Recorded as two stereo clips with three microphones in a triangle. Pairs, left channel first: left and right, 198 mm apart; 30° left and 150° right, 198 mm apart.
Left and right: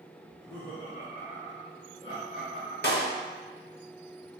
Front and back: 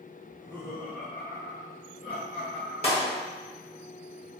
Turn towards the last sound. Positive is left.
turn(degrees=80)